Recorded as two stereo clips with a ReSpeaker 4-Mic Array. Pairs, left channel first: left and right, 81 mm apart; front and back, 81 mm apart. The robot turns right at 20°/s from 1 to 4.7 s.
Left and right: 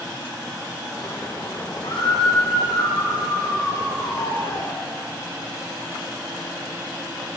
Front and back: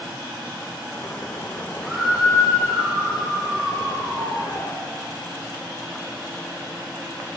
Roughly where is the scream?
Left.